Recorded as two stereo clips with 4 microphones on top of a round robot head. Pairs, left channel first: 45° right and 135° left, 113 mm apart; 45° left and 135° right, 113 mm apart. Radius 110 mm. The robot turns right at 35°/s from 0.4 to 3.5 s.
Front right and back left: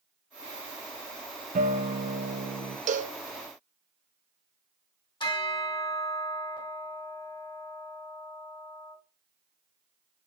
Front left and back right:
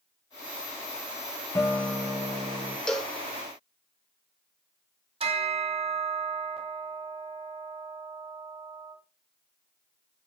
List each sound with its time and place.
1.6 s a guitar: 120° left, 0.6 m; by 2.8 s 160° left, 0.6 m
2.9 s a cowbell: 130° left, 0.6 m; by 3.2 s 140° left, 0.6 m
5.2 s a bell: 95° right, 2 m